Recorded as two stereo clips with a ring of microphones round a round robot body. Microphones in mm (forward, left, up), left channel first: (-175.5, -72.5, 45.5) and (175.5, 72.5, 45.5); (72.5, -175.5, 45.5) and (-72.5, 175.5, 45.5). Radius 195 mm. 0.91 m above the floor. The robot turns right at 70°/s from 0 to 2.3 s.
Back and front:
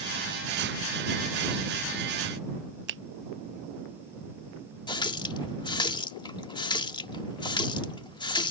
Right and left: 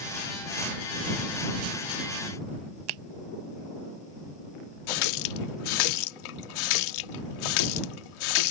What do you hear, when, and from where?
2.9 s a finger snap: 85° left
4.9 s a running tap: 80° right